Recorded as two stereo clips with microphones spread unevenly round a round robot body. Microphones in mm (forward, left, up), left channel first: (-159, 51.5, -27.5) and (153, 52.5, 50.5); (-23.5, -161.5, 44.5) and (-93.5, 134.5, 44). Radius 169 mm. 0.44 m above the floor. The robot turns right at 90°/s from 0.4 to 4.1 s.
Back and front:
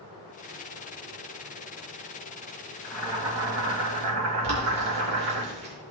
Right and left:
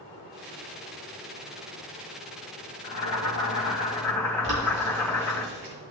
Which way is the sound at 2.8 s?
105° right.